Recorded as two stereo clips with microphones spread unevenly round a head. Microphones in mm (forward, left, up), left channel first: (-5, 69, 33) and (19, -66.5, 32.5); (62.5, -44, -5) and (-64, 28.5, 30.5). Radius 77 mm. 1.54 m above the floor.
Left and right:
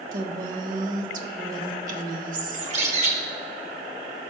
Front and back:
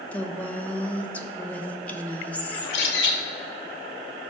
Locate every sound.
0.1 s a woman speaking: 115° right, 1.3 m
2.5 s a bird: 40° right, 1.9 m